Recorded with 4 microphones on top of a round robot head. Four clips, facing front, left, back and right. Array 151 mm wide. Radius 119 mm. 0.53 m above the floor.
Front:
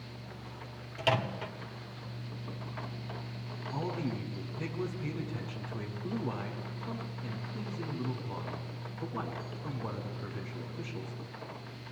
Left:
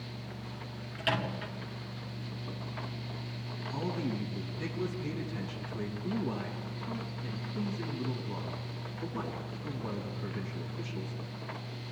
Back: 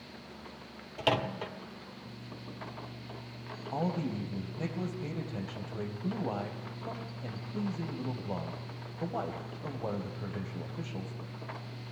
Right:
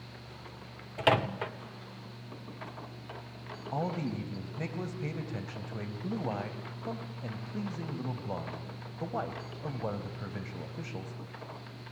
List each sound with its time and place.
1.0 s a microwave: 115° right, 1.5 m
3.7 s a man speaking: 130° right, 3.5 m